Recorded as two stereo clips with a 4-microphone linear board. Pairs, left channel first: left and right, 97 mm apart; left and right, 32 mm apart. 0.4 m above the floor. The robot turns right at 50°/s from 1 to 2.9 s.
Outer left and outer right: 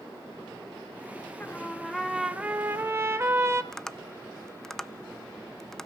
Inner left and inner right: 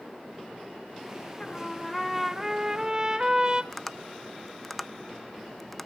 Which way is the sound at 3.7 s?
5° left (ahead or behind).